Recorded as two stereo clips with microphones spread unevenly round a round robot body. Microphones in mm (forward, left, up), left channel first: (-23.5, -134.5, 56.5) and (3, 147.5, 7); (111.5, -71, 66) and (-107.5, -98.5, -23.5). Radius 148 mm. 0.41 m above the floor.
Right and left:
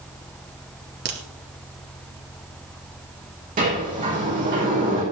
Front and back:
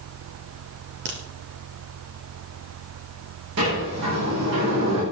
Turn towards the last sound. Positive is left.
turn(degrees=145)